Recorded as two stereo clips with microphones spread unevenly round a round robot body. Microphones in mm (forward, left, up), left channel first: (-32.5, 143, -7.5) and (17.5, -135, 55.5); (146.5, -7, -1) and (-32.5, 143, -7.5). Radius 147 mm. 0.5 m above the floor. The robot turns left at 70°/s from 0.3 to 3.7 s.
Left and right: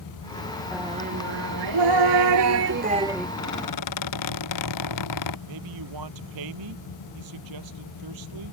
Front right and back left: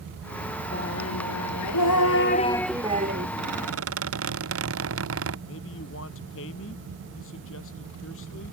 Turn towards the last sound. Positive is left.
turn(degrees=-90)